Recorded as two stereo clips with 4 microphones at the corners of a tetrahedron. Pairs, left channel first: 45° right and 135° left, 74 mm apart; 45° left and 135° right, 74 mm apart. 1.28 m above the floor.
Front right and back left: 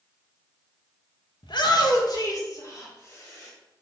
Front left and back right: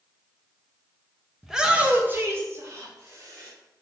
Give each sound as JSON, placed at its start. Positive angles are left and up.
{"t": 1.4, "sound": "a shout", "azimuth_deg": -50, "distance_m": 1.5}